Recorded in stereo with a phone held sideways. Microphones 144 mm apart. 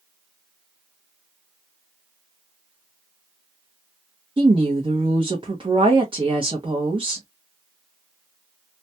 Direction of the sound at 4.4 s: 35° right (ahead or behind).